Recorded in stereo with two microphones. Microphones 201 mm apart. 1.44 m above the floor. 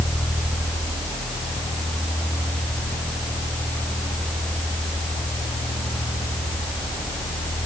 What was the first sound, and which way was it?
Only background noise.